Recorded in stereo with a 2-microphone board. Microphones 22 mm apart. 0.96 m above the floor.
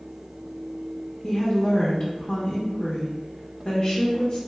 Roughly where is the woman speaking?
Left.